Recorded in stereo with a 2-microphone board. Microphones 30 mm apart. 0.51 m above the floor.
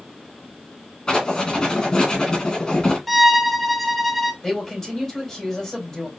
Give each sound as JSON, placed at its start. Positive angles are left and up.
{"t": 1.1, "sound": "writing", "side_deg": 25, "distance_m": 2.5}
{"t": 3.1, "sound": "a violin", "side_deg": -5, "distance_m": 0.5}
{"t": 4.4, "sound": "a man speaking", "side_deg": 10, "distance_m": 3.0}